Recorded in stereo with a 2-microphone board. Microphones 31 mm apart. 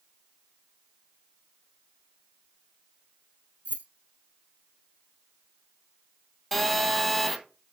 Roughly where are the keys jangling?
Right.